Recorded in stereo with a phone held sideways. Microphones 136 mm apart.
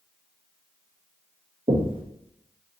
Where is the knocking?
40° right (ahead or behind), 0.6 m.